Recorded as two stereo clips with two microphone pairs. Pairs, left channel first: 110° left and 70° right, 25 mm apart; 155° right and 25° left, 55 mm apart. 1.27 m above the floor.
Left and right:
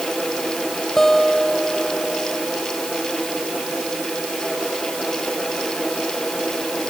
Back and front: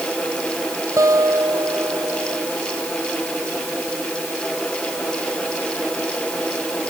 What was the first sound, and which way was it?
A guitar, 35° left.